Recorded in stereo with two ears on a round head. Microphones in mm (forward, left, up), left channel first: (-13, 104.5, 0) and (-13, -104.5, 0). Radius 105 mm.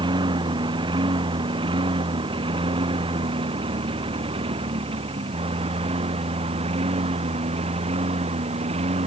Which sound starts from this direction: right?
A lawn mower, at 0.0 s.